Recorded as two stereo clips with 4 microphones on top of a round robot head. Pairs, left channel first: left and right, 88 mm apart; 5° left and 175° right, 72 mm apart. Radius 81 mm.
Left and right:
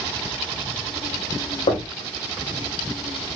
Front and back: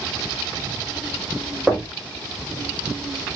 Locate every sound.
1.7 s knocking: 100° left, 2 m